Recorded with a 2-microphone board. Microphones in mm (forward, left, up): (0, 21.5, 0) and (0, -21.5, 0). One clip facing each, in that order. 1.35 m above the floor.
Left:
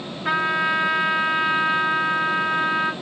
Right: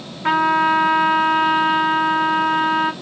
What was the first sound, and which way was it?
A trumpet, 60° right (ahead or behind).